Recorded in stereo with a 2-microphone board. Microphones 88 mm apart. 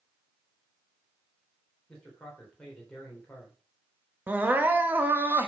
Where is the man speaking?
10° left (ahead or behind), 3.5 m.